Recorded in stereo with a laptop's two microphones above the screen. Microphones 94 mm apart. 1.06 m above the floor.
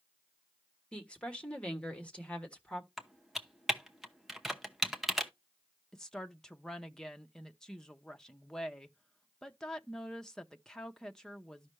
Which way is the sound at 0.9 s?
10° left (ahead or behind).